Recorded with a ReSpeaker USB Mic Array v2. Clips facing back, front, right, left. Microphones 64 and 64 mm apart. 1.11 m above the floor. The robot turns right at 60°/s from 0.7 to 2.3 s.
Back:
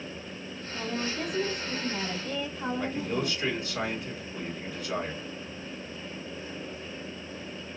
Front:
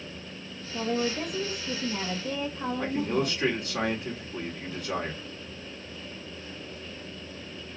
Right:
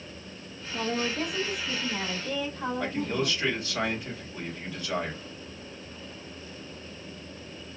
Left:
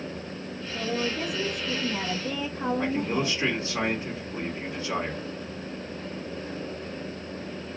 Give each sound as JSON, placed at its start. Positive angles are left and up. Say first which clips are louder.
{"t": 0.7, "sound": "a woman speaking", "louder": "front 4 dB, even", "azimuth_deg": -50, "distance_m": 1.2}
{"t": 2.8, "sound": "a man speaking", "louder": "front 5 dB, even", "azimuth_deg": 30, "distance_m": 2.0}